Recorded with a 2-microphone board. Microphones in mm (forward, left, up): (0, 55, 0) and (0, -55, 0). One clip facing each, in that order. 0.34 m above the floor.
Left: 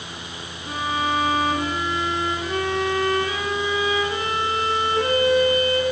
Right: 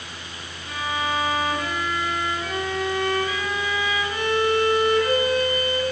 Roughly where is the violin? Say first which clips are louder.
Left 3 dB; left.